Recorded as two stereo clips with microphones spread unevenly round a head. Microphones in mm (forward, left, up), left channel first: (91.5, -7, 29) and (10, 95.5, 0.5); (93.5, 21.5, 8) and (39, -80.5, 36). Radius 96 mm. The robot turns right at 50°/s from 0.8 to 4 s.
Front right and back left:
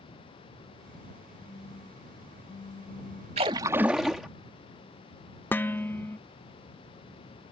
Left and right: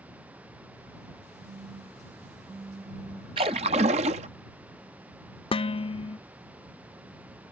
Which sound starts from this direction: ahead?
Dishes clattering, at 5.5 s.